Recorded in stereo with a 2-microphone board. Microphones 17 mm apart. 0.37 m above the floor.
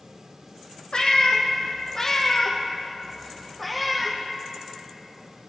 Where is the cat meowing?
55° left (ahead or behind), 1.4 m; by 4.2 s 5° right (ahead or behind), 1.8 m.